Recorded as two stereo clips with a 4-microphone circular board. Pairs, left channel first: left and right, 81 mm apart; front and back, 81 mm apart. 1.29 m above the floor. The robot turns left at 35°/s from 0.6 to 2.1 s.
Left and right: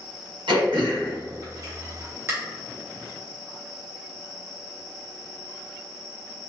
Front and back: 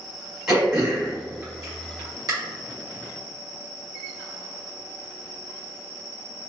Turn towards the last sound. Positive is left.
turn(degrees=-150)